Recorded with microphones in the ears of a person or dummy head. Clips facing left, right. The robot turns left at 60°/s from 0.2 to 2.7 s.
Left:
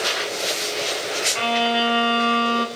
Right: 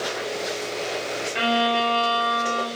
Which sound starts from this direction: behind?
A violin, at 1.4 s.